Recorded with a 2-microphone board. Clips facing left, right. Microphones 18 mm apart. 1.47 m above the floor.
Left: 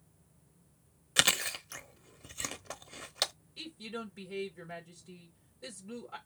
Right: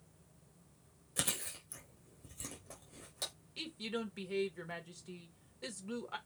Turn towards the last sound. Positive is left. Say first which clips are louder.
# right 1 dB
turn(degrees=-40)  # may be behind; listen again after turning